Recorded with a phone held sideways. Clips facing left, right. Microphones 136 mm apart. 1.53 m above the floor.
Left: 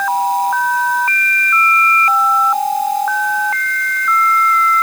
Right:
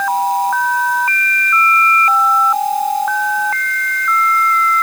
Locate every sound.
Only background noise.